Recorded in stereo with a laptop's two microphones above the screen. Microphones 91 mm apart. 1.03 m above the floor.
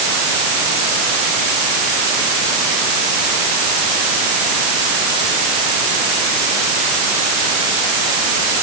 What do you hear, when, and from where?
Only background noise.